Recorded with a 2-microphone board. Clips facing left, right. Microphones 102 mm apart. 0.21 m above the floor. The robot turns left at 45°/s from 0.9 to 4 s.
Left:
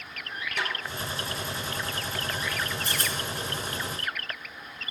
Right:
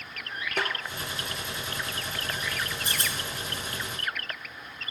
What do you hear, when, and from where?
0.6 s a snare drum: 55° right (ahead or behind), 1.3 m
2.9 s a rattle: 20° right (ahead or behind), 1.8 m; by 3.2 s 30° right (ahead or behind), 1.8 m